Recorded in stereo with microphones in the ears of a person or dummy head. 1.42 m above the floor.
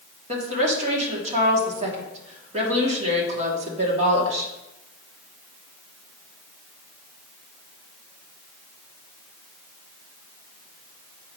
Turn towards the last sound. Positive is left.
turn(degrees=-45)  # may be behind; listen again after turning